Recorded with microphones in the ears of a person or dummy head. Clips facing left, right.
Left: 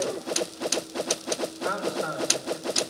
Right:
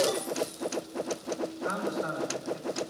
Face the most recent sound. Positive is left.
turn(degrees=75)  # may be behind; listen again after turning